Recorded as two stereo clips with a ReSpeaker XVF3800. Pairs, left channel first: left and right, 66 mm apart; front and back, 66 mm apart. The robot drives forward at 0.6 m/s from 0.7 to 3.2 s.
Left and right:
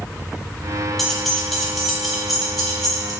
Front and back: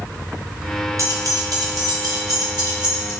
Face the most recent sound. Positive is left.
turn(degrees=180)